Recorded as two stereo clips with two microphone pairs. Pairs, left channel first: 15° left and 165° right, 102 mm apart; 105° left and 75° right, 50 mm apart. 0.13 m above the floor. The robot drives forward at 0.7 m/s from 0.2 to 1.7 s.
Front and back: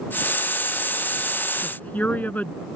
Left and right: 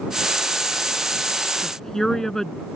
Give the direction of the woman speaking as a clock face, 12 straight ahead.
11 o'clock.